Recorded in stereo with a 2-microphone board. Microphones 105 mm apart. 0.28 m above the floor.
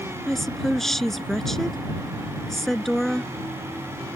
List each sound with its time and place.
0.3 s a woman speaking: 5° left (ahead or behind)